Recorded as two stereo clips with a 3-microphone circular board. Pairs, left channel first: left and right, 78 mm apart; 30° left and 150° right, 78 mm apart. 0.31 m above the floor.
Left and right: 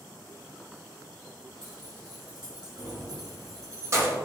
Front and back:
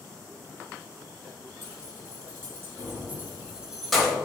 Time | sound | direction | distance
1.6 | keys jangling | 105° right | 1.6 m